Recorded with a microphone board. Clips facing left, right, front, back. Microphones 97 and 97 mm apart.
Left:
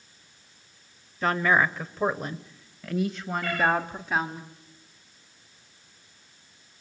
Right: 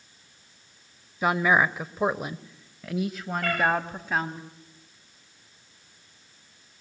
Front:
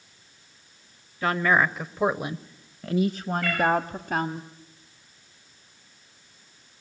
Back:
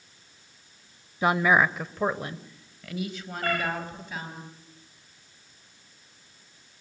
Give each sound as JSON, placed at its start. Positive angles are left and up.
{"t": 1.2, "sound": "a woman speaking", "azimuth_deg": -150, "distance_m": 0.9}
{"t": 3.4, "sound": "a cat meowing", "azimuth_deg": -125, "distance_m": 9.0}